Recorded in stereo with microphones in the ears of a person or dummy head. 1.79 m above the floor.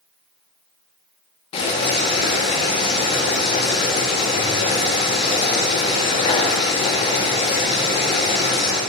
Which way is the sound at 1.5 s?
30° left (ahead or behind).